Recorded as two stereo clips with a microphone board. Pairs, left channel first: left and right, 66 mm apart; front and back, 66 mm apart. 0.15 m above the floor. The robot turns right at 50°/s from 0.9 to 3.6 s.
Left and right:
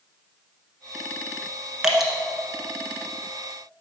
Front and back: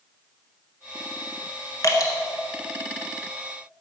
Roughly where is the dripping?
Ahead.